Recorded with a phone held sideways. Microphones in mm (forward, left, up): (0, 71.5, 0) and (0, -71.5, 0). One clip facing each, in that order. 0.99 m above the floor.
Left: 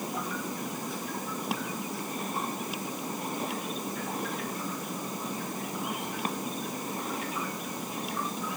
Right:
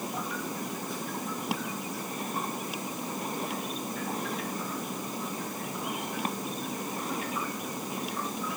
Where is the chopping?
No chopping in this recording.